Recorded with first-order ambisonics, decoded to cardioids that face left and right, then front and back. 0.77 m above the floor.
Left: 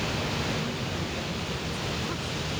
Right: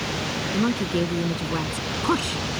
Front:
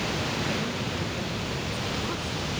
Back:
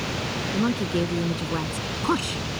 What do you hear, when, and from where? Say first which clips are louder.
0.5 s a woman speaking: right 7 dB, back 5 dB; 135° right